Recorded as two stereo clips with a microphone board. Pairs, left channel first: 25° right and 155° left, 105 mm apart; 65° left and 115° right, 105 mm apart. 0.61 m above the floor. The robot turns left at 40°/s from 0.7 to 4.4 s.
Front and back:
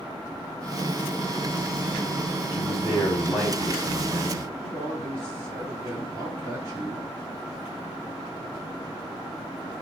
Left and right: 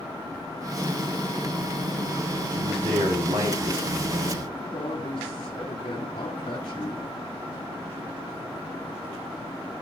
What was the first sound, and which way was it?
A man speaking, 70° right.